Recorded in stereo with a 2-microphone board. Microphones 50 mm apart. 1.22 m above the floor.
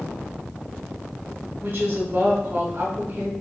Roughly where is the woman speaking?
Right.